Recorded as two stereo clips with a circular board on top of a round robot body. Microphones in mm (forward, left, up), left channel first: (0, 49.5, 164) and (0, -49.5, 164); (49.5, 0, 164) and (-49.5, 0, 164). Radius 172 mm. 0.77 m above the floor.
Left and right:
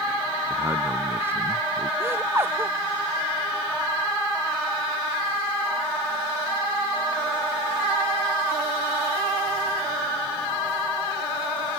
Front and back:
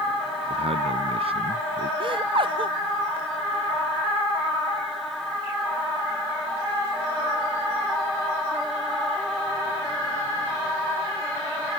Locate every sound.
0.5 s a man speaking: 160° right; by 1.9 s 155° right
2.0 s laughter: 155° right